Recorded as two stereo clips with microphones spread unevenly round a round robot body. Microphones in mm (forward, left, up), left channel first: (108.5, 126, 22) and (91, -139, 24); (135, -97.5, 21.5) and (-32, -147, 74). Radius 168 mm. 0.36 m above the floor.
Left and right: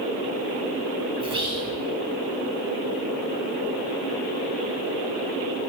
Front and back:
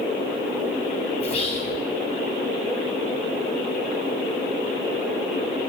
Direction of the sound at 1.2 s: 25° right.